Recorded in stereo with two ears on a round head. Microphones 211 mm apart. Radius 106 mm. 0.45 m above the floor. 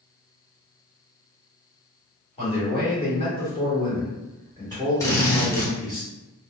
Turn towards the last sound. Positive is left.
turn(degrees=15)  # may be behind; listen again after turning